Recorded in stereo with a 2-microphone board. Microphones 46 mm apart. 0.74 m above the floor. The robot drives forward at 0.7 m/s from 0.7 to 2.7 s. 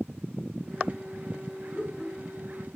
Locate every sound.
1.7 s laughter: 10° right (ahead or behind), 4.5 m